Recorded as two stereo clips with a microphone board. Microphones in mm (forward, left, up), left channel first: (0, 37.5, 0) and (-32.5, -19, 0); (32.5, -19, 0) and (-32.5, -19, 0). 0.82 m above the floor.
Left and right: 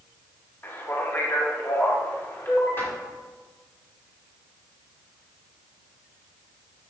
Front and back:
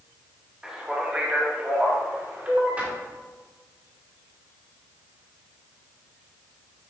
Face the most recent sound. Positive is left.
turn(degrees=110)